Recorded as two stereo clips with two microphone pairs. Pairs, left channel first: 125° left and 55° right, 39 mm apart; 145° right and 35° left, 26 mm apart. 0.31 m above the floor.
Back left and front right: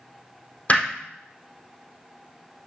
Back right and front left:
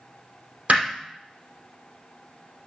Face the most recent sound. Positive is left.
turn(degrees=75)